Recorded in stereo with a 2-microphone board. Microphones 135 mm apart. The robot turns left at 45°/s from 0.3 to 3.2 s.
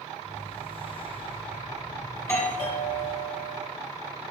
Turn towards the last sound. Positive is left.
turn(degrees=120)